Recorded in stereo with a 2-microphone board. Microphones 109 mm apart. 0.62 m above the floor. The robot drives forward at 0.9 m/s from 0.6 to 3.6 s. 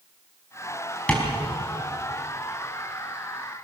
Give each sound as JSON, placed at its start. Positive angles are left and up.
{"t": 1.1, "sound": "tapping", "side_deg": 15, "distance_m": 4.5}